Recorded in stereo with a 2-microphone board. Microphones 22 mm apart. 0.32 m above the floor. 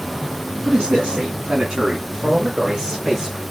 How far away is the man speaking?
About 3 m.